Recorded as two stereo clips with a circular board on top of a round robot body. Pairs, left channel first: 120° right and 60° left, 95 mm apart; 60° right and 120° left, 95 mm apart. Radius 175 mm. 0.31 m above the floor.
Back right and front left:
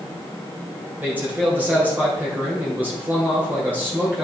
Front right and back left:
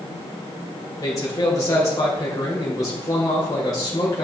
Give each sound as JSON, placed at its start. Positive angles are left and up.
{"t": 1.0, "sound": "a man speaking", "azimuth_deg": -10, "distance_m": 3.0}